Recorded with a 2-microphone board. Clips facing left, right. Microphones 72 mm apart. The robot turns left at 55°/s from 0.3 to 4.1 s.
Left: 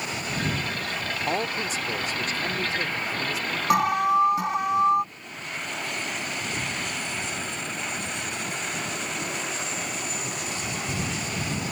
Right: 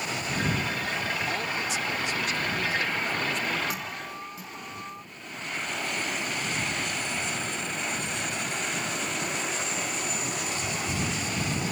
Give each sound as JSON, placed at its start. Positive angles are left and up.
{"t": 1.3, "sound": "a man speaking", "azimuth_deg": 120}
{"t": 3.7, "sound": "an alarm", "side_deg": 70}